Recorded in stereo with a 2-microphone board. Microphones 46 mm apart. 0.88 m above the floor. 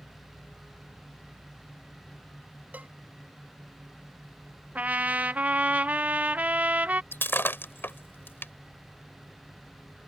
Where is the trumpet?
35° right (ahead or behind).